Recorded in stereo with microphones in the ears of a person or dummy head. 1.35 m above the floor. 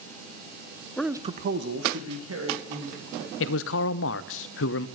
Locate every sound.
1.0 s a man speaking: 10° left (ahead or behind), 0.6 m; by 3.3 s 85° right, 3 m
3.4 s a man speaking: 65° left (ahead or behind), 0.5 m